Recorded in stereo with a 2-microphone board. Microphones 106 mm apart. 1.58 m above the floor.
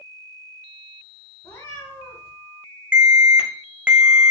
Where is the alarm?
15° right (ahead or behind), 0.6 m.